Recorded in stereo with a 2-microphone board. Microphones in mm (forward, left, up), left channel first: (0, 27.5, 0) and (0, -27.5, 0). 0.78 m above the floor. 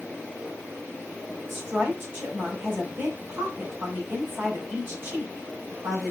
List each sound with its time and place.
1.5 s a woman speaking: 40° right (ahead or behind), 3.5 m